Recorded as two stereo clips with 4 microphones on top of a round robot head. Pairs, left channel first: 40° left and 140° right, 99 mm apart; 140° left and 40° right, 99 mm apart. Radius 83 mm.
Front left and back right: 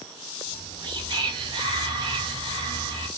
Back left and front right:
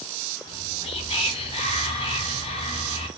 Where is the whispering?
175° left, 1.1 m.